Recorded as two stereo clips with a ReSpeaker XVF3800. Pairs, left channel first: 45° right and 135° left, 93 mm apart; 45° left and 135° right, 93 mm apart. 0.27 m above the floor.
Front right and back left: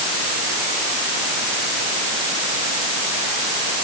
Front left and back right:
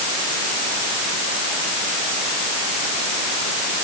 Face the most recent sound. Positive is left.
No sound to turn to.